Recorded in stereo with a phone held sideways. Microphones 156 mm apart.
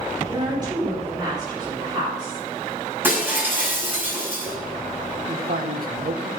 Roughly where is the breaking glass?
Centre.